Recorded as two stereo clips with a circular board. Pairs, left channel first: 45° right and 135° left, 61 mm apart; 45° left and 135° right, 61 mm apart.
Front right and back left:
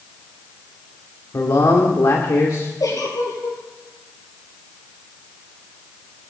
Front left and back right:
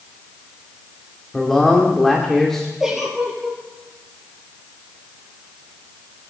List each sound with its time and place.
1.3 s a man speaking: 40° right, 2.0 m
2.8 s a giggle: 50° right, 4.5 m